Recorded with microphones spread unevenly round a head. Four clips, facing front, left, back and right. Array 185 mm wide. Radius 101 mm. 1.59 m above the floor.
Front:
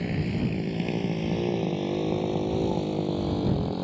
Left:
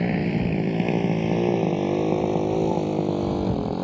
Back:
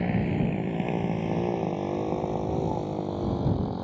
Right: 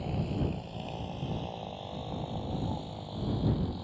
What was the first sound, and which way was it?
A motorcycle, 90° left.